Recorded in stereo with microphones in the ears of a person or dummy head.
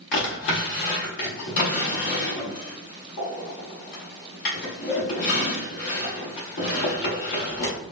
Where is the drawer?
35° left (ahead or behind), 1.0 m.